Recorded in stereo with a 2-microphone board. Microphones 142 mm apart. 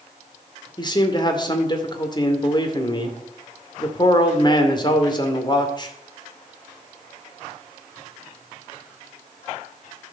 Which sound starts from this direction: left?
A man speaking, at 0.8 s.